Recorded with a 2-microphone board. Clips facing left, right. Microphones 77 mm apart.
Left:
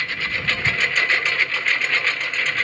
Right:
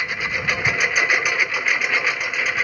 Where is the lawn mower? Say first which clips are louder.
Right 1 dB; 15° right (ahead or behind); by 2.6 s 10° right (ahead or behind).